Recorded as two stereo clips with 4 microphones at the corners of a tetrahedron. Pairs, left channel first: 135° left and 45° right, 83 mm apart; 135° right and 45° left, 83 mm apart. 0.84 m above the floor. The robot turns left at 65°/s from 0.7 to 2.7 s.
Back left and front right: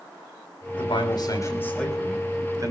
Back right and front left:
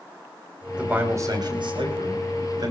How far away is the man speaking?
About 6 m.